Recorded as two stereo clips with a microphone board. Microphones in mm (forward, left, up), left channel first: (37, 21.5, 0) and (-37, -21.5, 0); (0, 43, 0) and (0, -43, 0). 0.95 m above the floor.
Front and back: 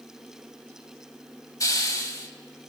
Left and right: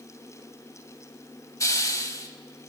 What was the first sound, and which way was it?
A hiss, 60° left.